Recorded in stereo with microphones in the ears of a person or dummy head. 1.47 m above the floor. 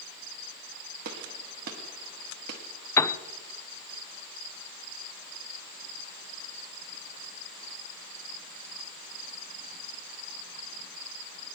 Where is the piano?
20° left (ahead or behind), 0.7 m.